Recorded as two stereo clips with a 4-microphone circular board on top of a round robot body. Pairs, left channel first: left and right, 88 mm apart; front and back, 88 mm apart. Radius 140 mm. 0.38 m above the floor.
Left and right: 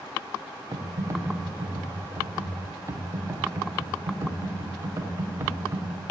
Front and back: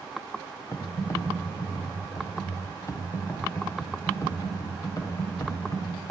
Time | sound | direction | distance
0.7 | typing on a keyboard | 40° right | 1.8 m